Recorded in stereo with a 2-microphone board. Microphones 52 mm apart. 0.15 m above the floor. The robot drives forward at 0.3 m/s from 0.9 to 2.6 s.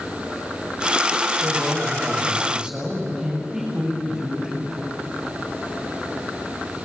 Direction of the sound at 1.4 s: 10° right (ahead or behind).